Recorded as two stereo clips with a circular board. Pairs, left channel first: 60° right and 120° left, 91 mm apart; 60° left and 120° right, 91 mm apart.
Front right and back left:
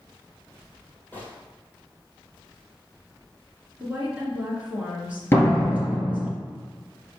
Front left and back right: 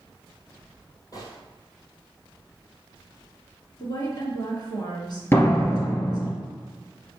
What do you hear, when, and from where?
1.1 s a gunshot: 10° left, 2 m
3.8 s a woman speaking: 55° left, 2.5 m
5.3 s a door slam: straight ahead, 2 m